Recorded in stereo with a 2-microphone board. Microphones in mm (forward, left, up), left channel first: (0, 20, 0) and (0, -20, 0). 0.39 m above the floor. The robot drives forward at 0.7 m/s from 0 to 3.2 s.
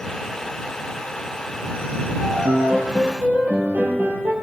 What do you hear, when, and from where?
2.2 s a piano: 60° right (ahead or behind), 8.5 m; by 4.3 s 55° right (ahead or behind), 8.5 m